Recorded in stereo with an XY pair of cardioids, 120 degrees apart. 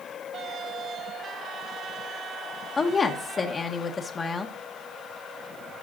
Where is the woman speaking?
35° left, 1.0 m.